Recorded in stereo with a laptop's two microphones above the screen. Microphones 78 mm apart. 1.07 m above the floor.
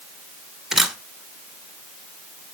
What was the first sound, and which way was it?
A camera shutter, 5° right (ahead or behind).